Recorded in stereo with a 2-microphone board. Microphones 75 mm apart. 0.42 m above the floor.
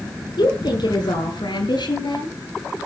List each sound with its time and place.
0.4 s a woman speaking: 80° left, 5.5 m